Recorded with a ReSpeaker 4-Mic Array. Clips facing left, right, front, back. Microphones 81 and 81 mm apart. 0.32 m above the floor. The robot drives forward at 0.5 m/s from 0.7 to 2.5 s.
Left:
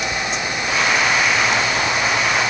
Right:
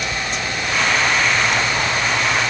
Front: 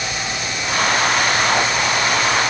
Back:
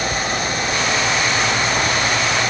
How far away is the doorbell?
No doorbell in this recording.